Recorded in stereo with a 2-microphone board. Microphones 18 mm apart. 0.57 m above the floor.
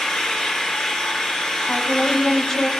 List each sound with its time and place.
0.0 s an engine running: 80° left, 5.5 m
1.7 s a woman speaking: 40° left (ahead or behind), 3.5 m